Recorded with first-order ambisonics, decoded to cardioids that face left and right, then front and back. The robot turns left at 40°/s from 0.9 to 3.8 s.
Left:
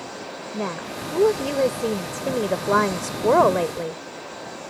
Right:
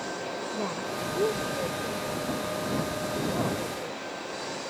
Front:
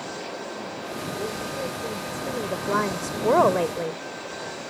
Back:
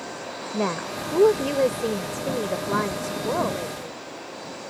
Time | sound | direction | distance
0.5 | a woman speaking | 160° left | ?